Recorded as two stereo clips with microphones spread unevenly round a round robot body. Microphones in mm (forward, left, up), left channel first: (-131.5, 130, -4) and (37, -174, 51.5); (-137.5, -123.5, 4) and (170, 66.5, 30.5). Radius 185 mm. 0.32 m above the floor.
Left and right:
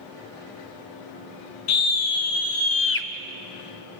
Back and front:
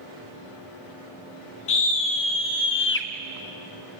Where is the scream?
155° left, 2.5 m; by 3.1 s 160° left, 1.5 m.